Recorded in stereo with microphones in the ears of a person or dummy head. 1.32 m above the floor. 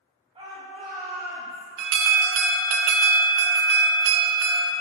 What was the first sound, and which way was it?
A shout, 25° right (ahead or behind).